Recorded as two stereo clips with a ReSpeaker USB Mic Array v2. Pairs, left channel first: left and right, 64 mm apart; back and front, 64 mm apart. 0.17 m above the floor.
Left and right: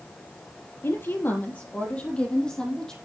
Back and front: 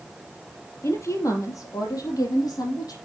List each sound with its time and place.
0.8 s a woman speaking: 135° left, 3.5 m; by 2.9 s 170° left, 5.5 m